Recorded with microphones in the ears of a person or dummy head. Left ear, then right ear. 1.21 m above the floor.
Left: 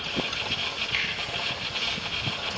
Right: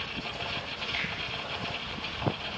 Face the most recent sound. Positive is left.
turn(degrees=10)  # may be behind; listen again after turning